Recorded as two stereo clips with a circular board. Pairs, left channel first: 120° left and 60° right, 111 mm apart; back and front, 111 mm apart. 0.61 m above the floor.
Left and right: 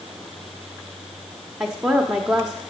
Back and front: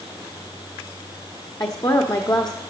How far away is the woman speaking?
About 0.9 m.